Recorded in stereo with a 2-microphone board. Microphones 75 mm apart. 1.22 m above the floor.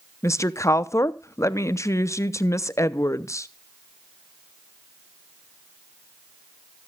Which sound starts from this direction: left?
A woman speaking, at 0.2 s.